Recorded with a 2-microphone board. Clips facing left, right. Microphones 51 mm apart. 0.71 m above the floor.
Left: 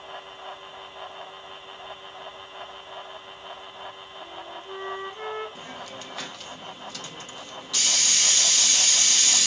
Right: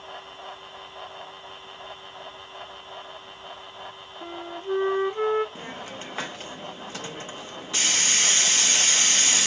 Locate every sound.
4.2 s a flute: 40° right (ahead or behind), 0.7 m
5.5 s a hiss: 30° right (ahead or behind), 0.5 m